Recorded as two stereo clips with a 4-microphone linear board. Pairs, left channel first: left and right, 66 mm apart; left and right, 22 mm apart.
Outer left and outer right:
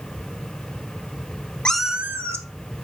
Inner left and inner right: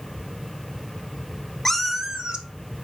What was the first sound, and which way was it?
A cat meowing, 15° left (ahead or behind).